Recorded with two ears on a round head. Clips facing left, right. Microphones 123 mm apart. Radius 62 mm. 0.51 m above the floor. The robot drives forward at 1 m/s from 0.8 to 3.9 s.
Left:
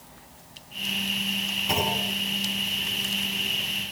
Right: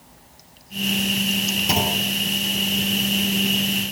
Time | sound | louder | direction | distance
1.7 | a clunk | right 2 dB | 50° right (ahead or behind) | 4 m